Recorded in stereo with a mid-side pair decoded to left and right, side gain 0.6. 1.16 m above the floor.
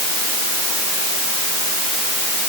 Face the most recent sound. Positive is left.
No sound to turn to.